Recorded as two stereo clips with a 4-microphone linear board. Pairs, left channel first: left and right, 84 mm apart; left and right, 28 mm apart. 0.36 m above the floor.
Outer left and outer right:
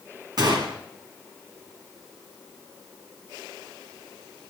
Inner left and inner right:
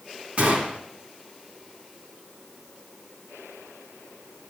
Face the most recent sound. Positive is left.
turn(degrees=-60)  # may be behind; listen again after turning